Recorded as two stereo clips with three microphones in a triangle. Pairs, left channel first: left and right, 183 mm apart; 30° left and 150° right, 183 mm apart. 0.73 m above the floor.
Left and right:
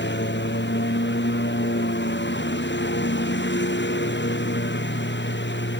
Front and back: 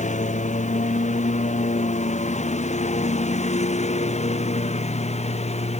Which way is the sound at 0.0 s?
80° left.